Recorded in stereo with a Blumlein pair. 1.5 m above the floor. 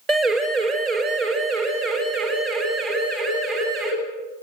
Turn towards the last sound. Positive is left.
turn(degrees=-35)